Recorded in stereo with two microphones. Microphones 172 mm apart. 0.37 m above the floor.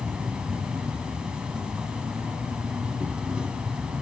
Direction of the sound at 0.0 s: 5° right (ahead or behind).